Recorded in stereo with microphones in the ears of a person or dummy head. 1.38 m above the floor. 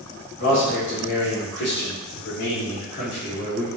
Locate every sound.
0.4 s a man speaking: 60° left (ahead or behind), 1.9 m